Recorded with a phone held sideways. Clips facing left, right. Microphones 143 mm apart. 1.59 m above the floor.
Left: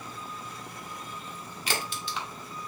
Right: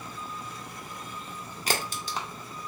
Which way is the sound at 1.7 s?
40° right (ahead or behind).